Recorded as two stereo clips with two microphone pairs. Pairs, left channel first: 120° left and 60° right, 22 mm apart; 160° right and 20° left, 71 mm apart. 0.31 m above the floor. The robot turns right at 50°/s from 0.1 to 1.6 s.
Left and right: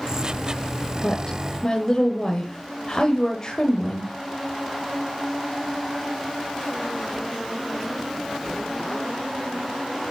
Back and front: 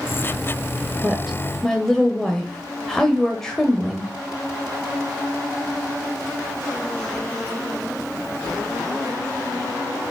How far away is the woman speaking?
About 1.4 m.